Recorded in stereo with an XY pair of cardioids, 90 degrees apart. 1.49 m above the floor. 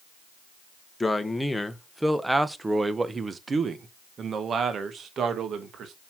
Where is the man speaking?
20° left, 1.4 m; by 5.9 s 70° right, 2 m.